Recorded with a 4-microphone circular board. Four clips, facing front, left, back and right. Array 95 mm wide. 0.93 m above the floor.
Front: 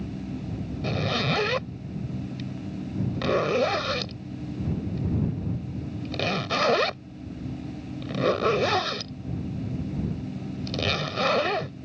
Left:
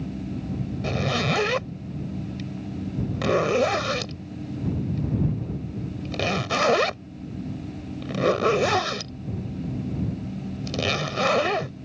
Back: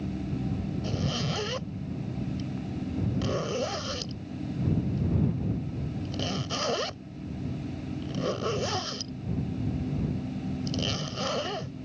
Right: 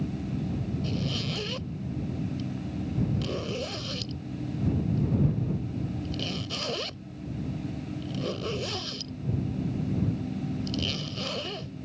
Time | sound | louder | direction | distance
0.8 | a zipper | left 7 dB, front 7 dB | 55° left | ?